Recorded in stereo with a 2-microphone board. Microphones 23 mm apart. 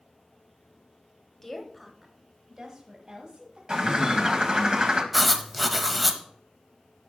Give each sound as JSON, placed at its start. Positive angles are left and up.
{"t": 1.4, "sound": "a woman speaking", "side_deg": 20, "distance_m": 1.2}
{"t": 3.7, "sound": "a bird", "side_deg": -35, "distance_m": 1.1}
{"t": 5.1, "sound": "writing", "side_deg": 0, "distance_m": 0.7}